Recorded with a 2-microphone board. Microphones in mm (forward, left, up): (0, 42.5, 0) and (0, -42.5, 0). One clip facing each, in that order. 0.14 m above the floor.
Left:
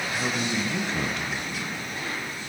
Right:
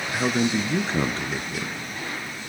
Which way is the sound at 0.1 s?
35° right (ahead or behind).